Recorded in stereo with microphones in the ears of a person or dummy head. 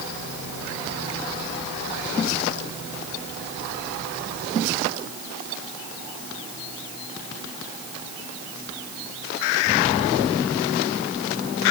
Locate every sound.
Only background noise.